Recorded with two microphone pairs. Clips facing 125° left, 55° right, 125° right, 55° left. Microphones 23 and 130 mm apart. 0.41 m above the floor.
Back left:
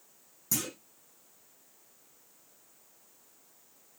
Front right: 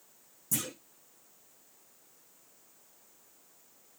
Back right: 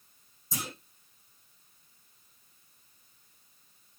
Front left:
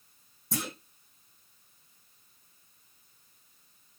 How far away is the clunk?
About 6 m.